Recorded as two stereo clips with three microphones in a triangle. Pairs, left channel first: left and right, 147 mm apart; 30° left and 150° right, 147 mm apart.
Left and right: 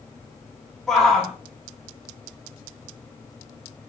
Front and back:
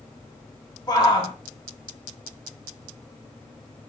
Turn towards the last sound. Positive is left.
turn(degrees=5)